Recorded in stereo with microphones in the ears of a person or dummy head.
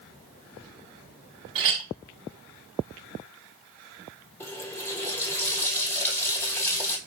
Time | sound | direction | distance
1.6 | a clink | 30° right (ahead or behind) | 0.7 m
4.4 | a running tap | 10° left (ahead or behind) | 0.9 m